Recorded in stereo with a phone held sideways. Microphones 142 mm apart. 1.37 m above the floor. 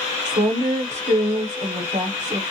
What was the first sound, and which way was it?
A woman speaking, 60° right (ahead or behind).